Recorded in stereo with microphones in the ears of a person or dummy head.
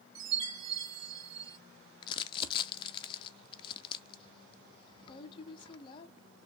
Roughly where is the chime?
Right.